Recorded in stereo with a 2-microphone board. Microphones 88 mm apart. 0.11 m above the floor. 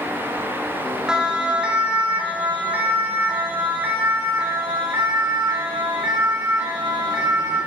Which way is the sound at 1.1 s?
10° right (ahead or behind).